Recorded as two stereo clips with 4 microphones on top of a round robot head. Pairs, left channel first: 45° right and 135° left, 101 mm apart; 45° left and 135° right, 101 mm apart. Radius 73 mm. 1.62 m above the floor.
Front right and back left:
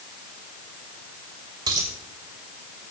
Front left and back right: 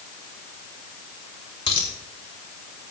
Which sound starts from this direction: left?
A dropped coin, at 1.7 s.